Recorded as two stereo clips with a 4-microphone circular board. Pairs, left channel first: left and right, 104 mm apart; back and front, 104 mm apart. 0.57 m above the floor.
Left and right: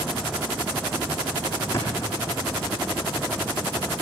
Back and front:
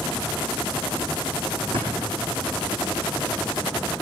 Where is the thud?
25° left, 6.5 m.